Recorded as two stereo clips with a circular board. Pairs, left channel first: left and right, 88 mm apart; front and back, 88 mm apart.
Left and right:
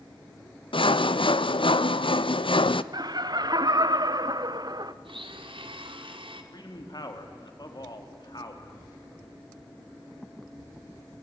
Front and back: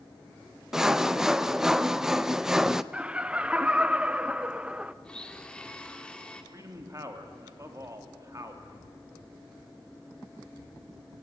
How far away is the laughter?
About 0.9 m.